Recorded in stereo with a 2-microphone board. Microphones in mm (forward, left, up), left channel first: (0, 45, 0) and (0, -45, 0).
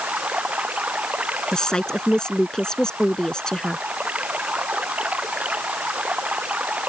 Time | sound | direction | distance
0.0 | running water | 15° right (ahead or behind) | ?
1.5 | a woman speaking | 10° left (ahead or behind) | ?